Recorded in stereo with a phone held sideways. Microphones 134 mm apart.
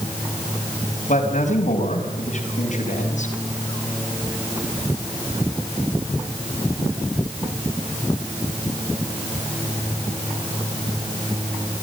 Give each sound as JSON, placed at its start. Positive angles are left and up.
{"t": 1.1, "sound": "a man speaking", "side_deg": 70, "distance_m": 5.0}